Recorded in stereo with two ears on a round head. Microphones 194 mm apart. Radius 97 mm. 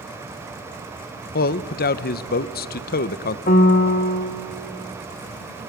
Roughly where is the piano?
Left.